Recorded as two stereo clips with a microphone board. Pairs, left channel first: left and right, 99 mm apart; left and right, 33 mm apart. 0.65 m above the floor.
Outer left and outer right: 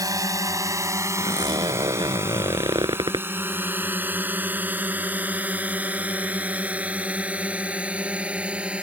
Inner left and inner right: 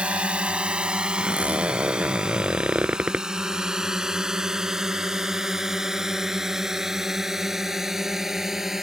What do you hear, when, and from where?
0.0 s a drone: 35° right (ahead or behind); by 8.8 s 10° right (ahead or behind)
1.2 s a zipper: 45° right (ahead or behind)